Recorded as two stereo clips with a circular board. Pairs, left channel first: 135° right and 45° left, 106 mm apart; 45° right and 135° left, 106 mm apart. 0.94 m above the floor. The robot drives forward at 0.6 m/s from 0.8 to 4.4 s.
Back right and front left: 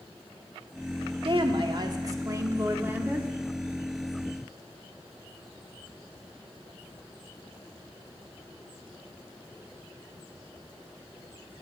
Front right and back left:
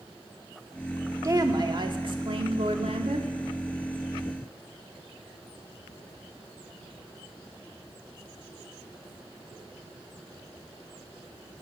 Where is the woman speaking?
80° left, 1.6 m; by 3.3 s 120° left, 1.8 m.